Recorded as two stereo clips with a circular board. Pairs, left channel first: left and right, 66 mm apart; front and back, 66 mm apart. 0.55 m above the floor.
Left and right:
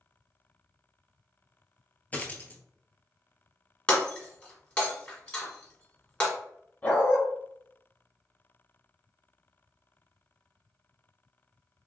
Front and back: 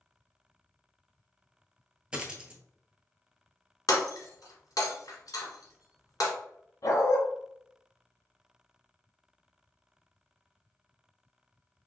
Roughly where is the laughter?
I don't hear laughter.